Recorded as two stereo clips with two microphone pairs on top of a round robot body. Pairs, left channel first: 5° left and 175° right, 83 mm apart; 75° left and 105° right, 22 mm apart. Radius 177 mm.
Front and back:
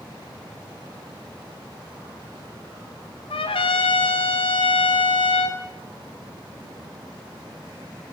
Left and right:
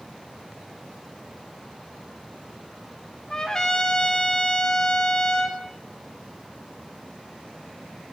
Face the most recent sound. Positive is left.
turn(degrees=15)